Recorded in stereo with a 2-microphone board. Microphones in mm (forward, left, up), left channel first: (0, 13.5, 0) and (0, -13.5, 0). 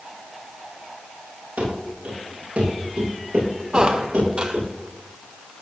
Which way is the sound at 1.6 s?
65° right (ahead or behind).